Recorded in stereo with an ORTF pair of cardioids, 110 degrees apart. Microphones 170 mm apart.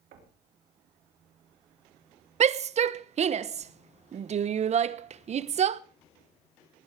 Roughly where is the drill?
No drill in this recording.